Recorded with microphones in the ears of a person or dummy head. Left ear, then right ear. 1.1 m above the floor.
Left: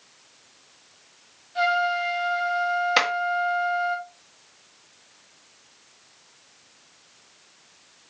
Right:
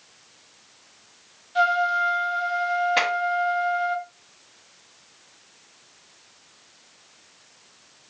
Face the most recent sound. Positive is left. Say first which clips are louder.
# left 3 dB
turn(degrees=50)  # may be behind; listen again after turning